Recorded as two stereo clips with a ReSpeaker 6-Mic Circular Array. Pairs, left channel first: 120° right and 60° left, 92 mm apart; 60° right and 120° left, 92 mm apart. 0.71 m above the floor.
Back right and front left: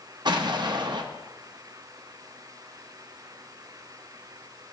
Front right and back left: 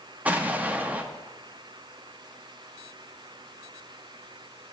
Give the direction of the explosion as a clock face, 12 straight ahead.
10 o'clock.